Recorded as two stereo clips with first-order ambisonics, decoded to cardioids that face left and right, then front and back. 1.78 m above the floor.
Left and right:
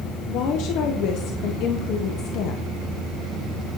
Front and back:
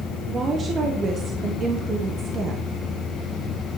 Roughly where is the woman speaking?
Behind left.